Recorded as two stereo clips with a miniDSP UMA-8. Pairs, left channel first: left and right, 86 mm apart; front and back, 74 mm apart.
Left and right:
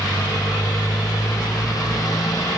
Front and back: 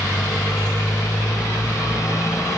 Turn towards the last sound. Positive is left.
turn(degrees=45)